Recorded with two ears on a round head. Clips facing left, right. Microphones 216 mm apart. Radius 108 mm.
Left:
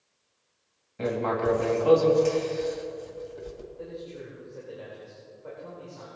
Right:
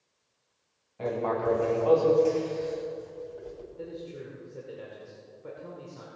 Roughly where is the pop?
No pop in this recording.